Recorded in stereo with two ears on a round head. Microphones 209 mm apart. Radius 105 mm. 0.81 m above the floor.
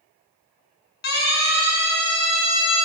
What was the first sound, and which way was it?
A siren, 45° left (ahead or behind).